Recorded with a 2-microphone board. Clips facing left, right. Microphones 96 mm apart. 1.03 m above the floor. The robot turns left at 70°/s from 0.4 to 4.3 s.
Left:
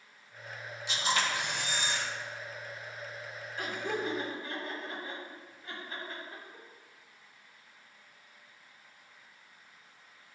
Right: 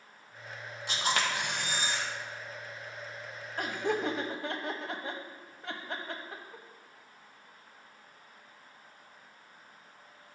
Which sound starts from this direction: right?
Laughter, at 3.6 s.